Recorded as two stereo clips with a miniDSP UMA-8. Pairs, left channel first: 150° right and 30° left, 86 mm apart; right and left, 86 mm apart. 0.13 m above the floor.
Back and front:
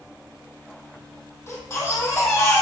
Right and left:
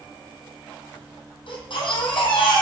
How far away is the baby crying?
About 3 m.